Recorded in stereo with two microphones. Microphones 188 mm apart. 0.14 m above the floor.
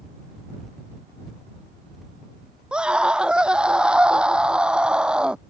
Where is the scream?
5° right (ahead or behind).